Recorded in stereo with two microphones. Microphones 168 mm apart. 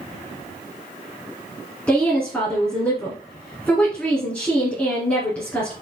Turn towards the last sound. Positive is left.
turn(degrees=10)  # may be behind; listen again after turning